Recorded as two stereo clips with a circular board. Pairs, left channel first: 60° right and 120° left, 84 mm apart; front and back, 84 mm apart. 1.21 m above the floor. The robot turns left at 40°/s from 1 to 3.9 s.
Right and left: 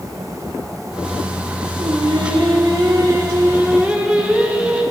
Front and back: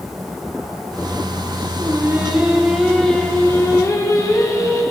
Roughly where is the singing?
Behind left.